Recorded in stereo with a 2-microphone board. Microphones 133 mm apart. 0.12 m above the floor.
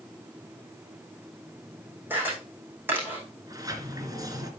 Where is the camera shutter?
15° right (ahead or behind), 7.5 m.